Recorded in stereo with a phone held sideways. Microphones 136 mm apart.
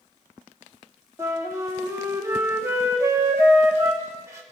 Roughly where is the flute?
Right.